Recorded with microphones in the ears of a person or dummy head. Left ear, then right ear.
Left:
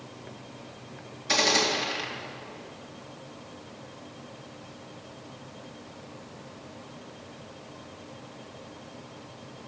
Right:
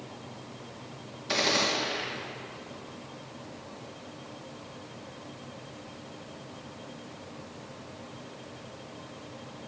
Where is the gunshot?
20° left (ahead or behind), 2.5 m.